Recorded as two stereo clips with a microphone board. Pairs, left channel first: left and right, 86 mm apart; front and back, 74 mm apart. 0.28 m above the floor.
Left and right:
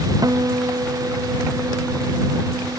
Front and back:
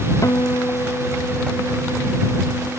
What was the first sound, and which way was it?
A guitar, 45° right.